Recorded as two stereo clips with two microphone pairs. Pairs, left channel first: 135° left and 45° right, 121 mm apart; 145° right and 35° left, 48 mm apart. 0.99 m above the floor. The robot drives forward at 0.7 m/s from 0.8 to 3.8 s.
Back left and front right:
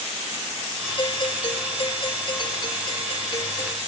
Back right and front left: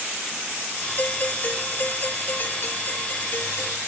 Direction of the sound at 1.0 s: 170° left.